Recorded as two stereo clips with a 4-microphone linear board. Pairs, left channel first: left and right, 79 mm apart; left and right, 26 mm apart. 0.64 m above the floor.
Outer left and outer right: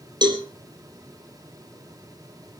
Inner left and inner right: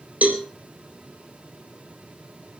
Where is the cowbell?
65° right (ahead or behind), 3 m.